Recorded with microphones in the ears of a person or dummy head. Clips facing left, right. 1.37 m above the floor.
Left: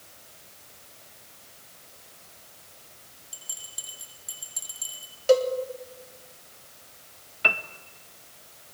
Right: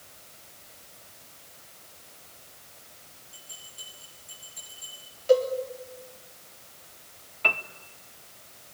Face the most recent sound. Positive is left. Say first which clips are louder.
# left 1 dB
turn(degrees=10)  # may be behind; listen again after turning